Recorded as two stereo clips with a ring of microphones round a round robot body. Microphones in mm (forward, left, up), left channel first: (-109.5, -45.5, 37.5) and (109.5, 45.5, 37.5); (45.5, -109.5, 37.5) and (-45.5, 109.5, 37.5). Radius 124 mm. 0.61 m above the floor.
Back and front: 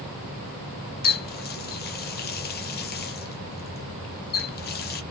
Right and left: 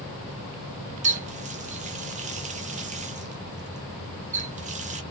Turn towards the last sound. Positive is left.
turn(degrees=165)